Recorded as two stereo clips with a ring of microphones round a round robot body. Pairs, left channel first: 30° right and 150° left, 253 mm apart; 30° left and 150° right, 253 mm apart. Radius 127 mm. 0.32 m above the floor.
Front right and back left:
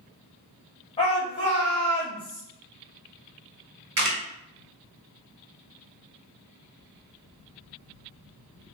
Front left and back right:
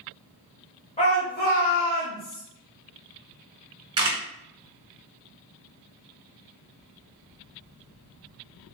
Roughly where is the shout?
Ahead.